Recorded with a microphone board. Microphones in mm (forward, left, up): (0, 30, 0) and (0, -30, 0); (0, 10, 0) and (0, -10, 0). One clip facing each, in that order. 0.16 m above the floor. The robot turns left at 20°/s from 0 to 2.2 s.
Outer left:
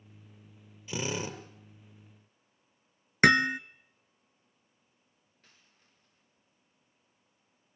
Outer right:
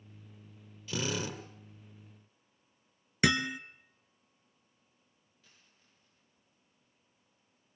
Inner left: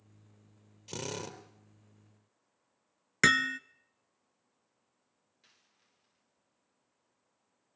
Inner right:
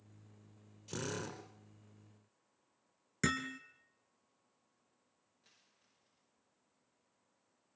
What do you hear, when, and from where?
0.9 s a drill: 25° left (ahead or behind), 3 m; by 1.4 s 35° left (ahead or behind), 3 m
3.2 s hammering: 55° left (ahead or behind), 0.8 m
5.4 s a dropped coin: 50° left (ahead or behind), 10 m